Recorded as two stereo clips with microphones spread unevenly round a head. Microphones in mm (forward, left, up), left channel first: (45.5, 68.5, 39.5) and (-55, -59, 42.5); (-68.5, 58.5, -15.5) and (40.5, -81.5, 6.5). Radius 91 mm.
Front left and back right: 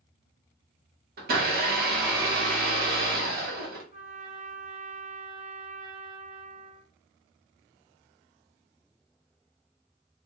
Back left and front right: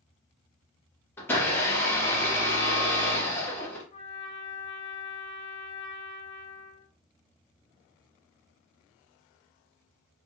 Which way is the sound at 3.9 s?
Straight behind.